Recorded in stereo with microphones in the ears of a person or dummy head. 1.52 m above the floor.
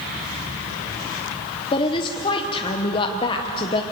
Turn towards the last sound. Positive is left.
turn(degrees=30)  # may be behind; listen again after turning